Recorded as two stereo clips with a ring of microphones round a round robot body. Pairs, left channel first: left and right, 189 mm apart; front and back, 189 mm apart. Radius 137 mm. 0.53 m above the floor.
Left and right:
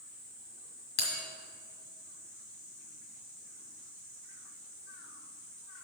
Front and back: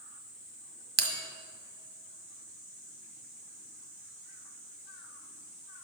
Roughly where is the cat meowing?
I don't hear a cat meowing.